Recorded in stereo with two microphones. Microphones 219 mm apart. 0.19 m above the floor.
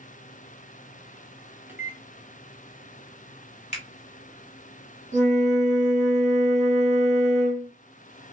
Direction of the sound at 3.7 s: 30° left (ahead or behind).